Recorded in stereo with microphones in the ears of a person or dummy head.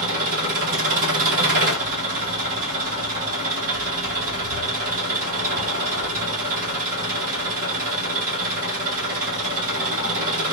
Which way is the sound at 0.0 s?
50° right (ahead or behind).